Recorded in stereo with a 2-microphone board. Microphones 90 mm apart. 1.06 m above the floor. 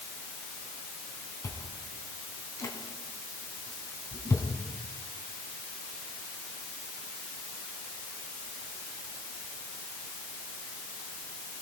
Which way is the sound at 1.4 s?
35° left (ahead or behind).